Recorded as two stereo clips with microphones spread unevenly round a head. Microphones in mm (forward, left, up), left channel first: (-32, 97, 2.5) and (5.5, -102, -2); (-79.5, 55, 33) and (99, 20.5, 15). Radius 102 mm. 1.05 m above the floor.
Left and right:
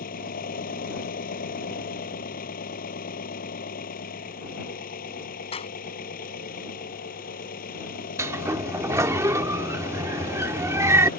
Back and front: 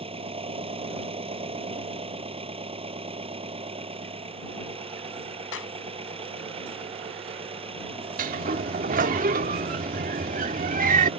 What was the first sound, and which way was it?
An engine running, 50° left.